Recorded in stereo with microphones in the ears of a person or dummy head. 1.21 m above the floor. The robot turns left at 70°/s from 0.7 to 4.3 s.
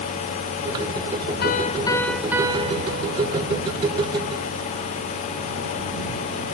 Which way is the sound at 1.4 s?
55° left.